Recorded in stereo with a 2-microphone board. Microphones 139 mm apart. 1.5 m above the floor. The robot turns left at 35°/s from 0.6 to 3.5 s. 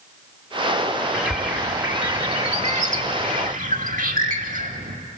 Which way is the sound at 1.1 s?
Straight ahead.